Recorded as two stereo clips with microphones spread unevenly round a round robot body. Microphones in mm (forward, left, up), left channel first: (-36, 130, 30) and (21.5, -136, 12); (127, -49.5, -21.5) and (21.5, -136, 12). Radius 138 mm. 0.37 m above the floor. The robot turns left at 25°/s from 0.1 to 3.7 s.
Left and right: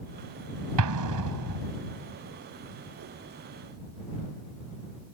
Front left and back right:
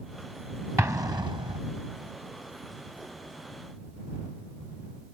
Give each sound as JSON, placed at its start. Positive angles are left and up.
{"t": 0.8, "sound": "an explosion", "azimuth_deg": -65}